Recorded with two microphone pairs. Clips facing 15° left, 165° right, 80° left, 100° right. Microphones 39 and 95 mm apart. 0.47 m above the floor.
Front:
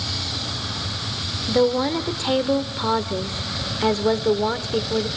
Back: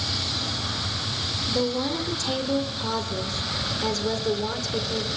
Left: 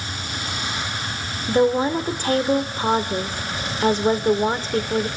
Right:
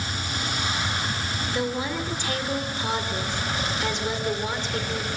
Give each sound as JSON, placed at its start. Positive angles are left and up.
{"t": 1.5, "sound": "a woman speaking", "azimuth_deg": 55, "distance_m": 1.6}